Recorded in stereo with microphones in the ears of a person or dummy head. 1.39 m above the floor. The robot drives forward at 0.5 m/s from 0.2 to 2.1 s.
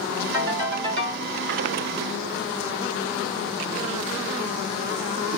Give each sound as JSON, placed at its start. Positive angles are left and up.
{"t": 0.3, "sound": "a ringtone", "side_deg": -25, "distance_m": 1.7}